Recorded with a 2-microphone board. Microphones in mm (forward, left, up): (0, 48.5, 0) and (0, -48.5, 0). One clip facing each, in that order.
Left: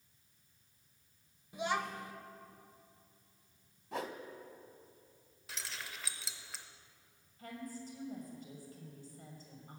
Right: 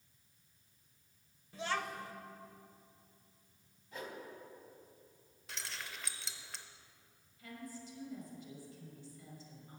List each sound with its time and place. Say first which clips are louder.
1.5 s a child speaking: left 2 dB; 15° left (ahead or behind), 0.6 m
3.9 s a whoosh: left 5 dB; 80° left, 0.6 m
5.5 s keys jangling: even; centre (ahead or behind), 0.5 m
7.4 s a woman speaking: left 3 dB; 45° left (ahead or behind), 2 m